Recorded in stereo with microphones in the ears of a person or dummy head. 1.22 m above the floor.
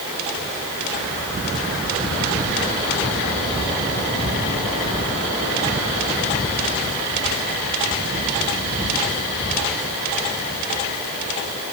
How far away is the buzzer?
No buzzer in this recording.